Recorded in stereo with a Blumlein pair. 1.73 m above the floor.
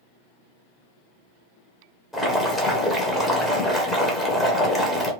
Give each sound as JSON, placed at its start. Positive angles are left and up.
{"t": 2.1, "sound": "boiling", "azimuth_deg": 5, "distance_m": 0.9}